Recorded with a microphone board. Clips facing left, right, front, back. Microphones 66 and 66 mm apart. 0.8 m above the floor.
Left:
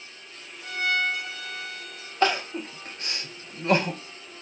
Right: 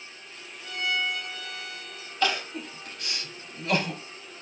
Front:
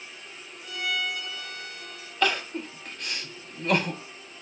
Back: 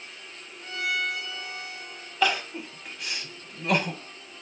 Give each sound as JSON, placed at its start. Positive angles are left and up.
{"t": 0.6, "sound": "a violin", "azimuth_deg": 145, "distance_m": 1.0}
{"t": 2.2, "sound": "crying", "azimuth_deg": 100, "distance_m": 0.7}